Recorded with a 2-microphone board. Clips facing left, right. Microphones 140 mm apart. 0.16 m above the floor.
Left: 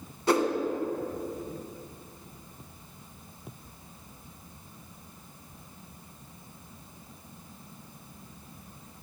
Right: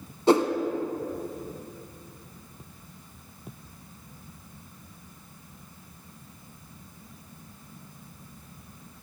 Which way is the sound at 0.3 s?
25° right (ahead or behind).